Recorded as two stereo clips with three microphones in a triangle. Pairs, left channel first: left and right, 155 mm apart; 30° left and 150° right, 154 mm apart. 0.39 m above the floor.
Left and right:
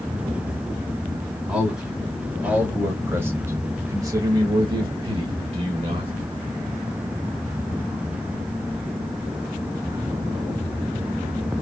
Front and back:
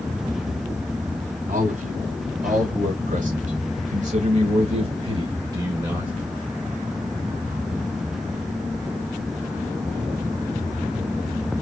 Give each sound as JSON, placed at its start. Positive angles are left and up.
{"t": 1.5, "sound": "a man speaking", "azimuth_deg": -175, "distance_m": 2.0}